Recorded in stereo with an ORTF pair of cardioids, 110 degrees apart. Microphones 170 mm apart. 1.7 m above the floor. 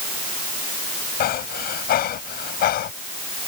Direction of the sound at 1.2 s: 65° left.